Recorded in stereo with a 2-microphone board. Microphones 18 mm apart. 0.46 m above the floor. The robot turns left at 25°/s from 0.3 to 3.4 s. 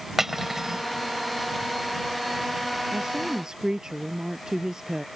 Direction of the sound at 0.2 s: 20° right (ahead or behind).